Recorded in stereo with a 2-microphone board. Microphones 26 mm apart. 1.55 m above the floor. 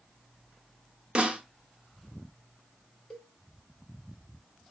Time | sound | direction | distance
1.1 | a snare drum | 35° right (ahead or behind) | 1.0 m
3.1 | a cowbell | 35° left (ahead or behind) | 1.4 m